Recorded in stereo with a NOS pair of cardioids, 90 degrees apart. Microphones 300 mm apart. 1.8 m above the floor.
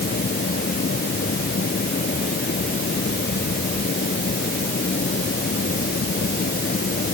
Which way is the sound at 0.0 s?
35° left.